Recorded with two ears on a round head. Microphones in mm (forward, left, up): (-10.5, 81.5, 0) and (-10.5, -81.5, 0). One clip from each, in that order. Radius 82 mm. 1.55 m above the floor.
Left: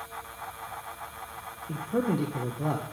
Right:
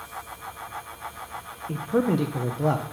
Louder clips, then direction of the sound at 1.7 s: Right 5 dB; 25° right (ahead or behind).